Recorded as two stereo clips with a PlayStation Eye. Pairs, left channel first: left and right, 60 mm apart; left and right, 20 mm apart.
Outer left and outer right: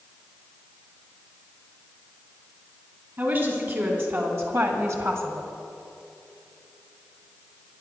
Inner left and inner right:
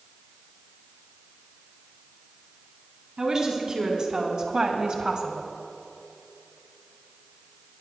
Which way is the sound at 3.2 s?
35° right (ahead or behind).